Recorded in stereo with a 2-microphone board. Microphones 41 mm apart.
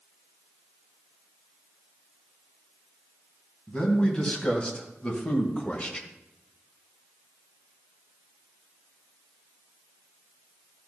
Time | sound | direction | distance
3.7 | a man speaking | 25° left (ahead or behind) | 2.5 m